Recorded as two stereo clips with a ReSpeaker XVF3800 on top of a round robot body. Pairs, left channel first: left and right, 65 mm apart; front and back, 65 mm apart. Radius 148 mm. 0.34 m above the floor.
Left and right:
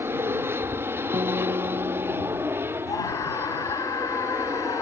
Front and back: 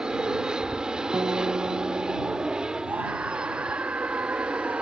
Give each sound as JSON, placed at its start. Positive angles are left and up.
{"t": 0.0, "sound": "an aircraft", "azimuth_deg": -110}
{"t": 1.1, "sound": "a guitar", "azimuth_deg": -125}
{"t": 2.9, "sound": "a scream", "azimuth_deg": 115}